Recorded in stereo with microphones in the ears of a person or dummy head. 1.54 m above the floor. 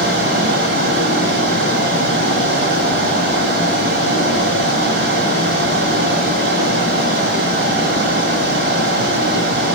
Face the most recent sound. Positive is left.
turn(degrees=-60)  # may be behind; listen again after turning